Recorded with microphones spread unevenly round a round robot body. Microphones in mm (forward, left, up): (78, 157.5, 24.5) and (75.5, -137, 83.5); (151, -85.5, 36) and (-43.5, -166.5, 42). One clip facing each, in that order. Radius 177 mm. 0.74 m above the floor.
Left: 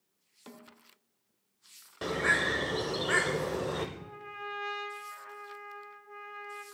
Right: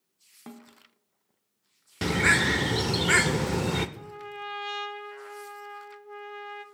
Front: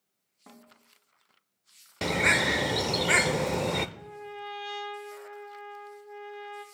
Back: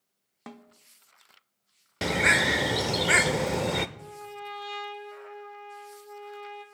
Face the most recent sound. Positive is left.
turn(degrees=-60)